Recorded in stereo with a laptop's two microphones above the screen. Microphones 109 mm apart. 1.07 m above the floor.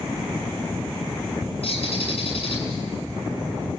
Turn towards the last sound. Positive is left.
turn(degrees=65)  # may be behind; listen again after turning